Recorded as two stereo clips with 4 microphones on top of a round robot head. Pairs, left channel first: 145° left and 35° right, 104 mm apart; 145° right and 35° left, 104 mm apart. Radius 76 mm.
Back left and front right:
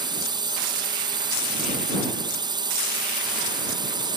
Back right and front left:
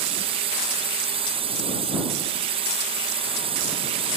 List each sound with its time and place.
0.0 s a drone: 10° left